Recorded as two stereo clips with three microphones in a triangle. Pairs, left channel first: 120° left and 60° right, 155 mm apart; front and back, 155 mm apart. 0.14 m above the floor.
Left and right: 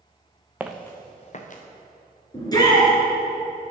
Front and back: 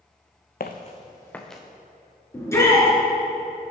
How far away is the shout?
About 2.5 m.